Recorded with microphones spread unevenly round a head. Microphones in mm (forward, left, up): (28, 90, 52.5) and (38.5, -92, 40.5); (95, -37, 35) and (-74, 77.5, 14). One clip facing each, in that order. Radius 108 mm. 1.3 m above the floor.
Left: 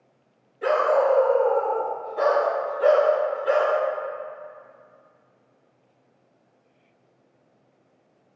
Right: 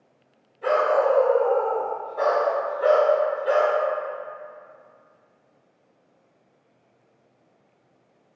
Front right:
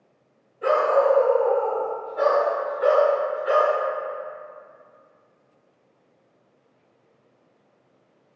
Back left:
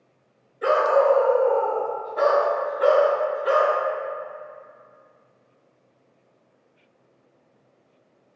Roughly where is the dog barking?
Left.